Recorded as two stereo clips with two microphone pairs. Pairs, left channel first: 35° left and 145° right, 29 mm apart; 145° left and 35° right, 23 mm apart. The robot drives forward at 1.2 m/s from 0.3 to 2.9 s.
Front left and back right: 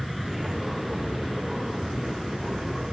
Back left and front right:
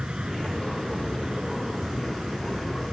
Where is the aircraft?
60° right; by 2.9 s 65° right.